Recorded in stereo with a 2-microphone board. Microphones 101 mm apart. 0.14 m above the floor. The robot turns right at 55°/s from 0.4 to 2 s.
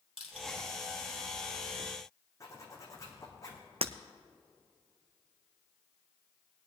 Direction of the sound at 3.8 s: 80° right.